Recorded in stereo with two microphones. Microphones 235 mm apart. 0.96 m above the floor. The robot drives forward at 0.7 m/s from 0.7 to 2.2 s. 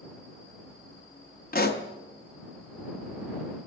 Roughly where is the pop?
Left.